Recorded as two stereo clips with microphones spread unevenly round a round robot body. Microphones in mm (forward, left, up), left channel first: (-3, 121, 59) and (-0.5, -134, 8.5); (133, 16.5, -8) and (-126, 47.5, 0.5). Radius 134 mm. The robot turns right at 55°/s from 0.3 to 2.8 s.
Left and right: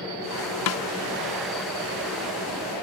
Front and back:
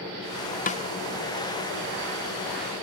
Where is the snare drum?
55° left, 1.1 m; by 0.8 s 65° left, 1.1 m.